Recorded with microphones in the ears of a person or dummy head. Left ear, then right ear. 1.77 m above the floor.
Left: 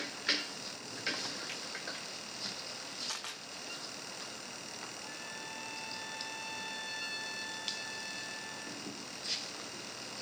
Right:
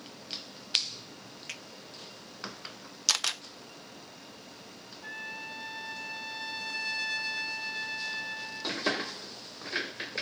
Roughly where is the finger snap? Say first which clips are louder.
Right 1 dB; right.